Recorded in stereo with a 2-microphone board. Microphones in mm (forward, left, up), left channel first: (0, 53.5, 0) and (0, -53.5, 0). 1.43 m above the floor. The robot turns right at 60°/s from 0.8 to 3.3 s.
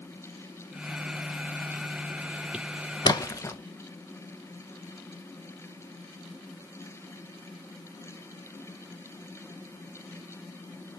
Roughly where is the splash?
Left.